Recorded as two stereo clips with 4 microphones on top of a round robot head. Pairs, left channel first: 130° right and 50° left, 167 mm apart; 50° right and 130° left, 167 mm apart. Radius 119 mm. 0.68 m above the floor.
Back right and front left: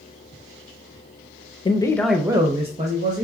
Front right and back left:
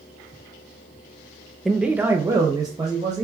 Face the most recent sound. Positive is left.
turn(degrees=70)